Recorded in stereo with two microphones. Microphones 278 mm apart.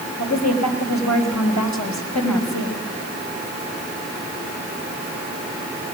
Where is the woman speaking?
80° left, 5.5 m.